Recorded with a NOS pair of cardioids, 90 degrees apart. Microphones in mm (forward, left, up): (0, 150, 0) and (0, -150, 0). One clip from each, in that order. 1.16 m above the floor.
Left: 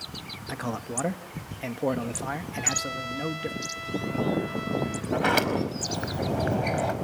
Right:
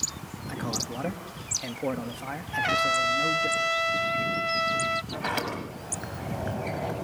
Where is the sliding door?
40° left, 5 m.